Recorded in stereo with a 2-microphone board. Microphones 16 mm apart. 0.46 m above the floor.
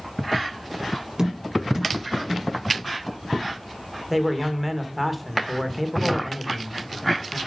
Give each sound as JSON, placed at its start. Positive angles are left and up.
{"t": 1.2, "sound": "tapping", "side_deg": -35, "distance_m": 4.0}
{"t": 4.1, "sound": "a man speaking", "side_deg": -5, "distance_m": 1.4}